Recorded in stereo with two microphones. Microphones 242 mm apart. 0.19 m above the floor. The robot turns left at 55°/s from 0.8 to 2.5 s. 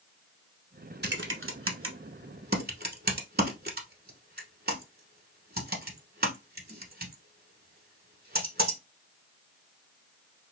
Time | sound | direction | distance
1.0 | typing on a keyboard | 45° right (ahead or behind) | 0.9 m